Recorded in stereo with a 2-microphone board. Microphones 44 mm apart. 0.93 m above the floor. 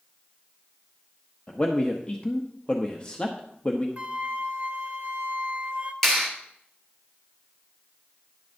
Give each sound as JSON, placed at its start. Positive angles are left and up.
{"t": 1.5, "sound": "a man speaking", "side_deg": 25, "distance_m": 0.8}
{"t": 4.0, "sound": "a flute", "side_deg": -40, "distance_m": 0.7}
{"t": 6.0, "sound": "a clap", "side_deg": 10, "distance_m": 3.0}